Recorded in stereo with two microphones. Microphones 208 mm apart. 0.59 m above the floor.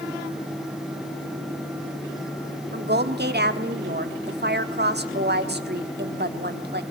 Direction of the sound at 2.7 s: 50° right (ahead or behind).